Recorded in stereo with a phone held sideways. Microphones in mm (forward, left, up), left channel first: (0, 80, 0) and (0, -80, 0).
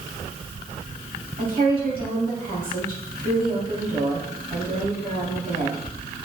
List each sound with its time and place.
1.4 s a woman speaking: 65° right (ahead or behind), 3 m